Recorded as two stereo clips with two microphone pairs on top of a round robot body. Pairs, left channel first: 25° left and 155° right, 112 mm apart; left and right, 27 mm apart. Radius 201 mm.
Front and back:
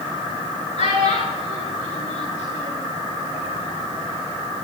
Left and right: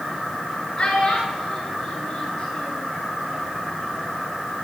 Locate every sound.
0.8 s a child speaking: 45° left, 7 m; by 2.9 s 35° left, 8 m